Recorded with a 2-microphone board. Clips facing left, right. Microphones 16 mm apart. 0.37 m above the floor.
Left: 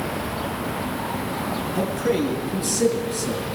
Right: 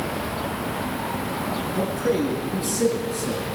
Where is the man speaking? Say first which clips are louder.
Left 1 dB; 15° left (ahead or behind), 5.5 m; by 3.5 s 25° left (ahead or behind), 6.5 m.